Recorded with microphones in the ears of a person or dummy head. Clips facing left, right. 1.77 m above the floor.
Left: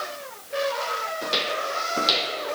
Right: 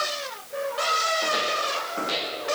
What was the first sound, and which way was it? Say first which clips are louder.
Footsteps: even; 45° left (ahead or behind).